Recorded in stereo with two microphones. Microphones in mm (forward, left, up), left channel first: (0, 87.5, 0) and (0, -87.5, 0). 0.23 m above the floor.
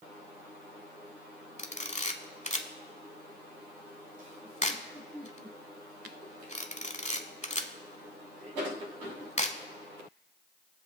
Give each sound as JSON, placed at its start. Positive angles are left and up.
{"t": 1.6, "sound": "a camera shutter", "side_deg": 40, "distance_m": 0.7}